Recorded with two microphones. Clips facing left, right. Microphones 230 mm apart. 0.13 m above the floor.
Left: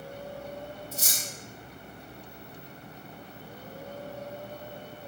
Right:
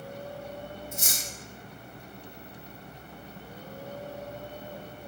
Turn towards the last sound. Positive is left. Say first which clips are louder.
# right 1 dB
turn(degrees=35)  # may be behind; listen again after turning